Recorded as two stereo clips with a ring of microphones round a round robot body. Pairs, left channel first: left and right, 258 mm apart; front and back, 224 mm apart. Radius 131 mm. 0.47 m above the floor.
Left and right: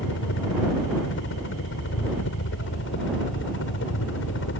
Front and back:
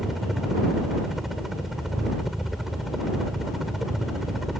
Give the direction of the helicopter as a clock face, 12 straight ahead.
9 o'clock.